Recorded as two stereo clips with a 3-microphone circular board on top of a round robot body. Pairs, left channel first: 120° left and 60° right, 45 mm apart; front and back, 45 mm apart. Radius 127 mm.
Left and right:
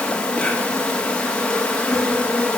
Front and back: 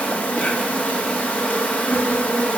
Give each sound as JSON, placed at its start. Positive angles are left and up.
{"t": 0.0, "sound": "an insect", "azimuth_deg": 55, "distance_m": 2.5}